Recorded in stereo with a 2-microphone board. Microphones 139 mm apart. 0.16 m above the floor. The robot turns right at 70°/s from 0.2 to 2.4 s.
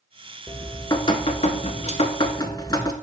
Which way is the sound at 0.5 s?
10° left.